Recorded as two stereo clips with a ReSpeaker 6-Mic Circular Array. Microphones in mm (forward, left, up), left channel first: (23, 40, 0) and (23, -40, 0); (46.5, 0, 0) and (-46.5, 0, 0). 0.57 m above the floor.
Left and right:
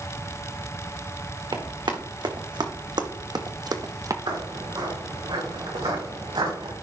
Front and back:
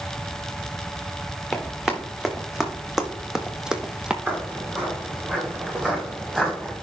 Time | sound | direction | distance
1.5 | running footsteps | 95° right | 1.9 m
4.3 | footsteps | 110° right | 4 m